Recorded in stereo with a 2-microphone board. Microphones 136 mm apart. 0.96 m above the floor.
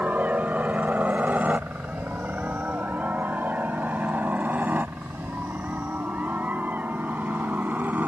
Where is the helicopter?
10° right (ahead or behind).